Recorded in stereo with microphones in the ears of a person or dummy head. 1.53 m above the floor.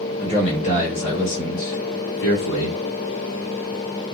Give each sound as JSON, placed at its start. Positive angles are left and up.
{"t": 0.2, "sound": "a man speaking", "side_deg": 15, "distance_m": 1.6}